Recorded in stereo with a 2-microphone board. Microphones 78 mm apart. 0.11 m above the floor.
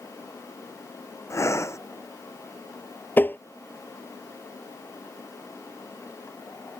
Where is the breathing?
35° left (ahead or behind).